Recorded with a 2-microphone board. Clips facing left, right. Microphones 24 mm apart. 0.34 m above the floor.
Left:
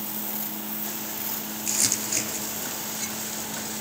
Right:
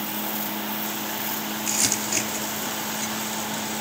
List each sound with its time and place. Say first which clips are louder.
1.7 s crumpling: right 1 dB; 10° right (ahead or behind), 3 m